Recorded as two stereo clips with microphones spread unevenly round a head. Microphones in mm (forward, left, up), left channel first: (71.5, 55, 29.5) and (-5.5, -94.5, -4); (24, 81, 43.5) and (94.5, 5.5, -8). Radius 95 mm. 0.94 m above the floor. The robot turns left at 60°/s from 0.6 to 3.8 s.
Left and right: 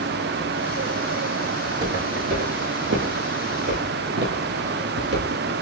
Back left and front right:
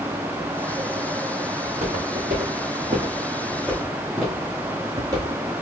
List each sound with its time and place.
1.6 s footsteps: 40° right, 3 m; by 5.4 s 130° right, 1.3 m